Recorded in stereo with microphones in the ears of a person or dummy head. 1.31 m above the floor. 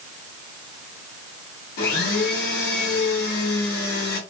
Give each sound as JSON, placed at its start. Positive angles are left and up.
{"t": 1.8, "sound": "a blender", "side_deg": 50, "distance_m": 1.1}